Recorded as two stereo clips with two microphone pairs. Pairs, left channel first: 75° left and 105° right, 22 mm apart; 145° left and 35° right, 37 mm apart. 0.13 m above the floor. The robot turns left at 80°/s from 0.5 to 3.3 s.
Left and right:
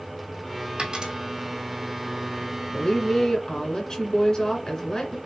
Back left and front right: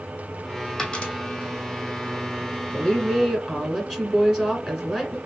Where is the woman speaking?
85° left, 1.9 m; by 5.2 s 40° left, 1.9 m.